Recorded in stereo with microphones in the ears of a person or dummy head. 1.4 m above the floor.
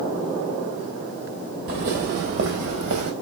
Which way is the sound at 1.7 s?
55° right (ahead or behind).